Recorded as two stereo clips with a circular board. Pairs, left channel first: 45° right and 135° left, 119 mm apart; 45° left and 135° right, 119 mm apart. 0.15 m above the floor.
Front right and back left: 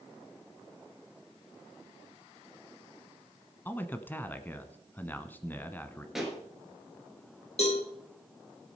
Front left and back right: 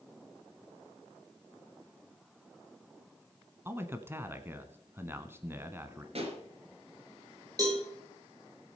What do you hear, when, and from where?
3.6 s a man speaking: 95° right, 1.1 m
6.2 s a pop: 140° right, 3 m
7.6 s a cowbell: 75° right, 5 m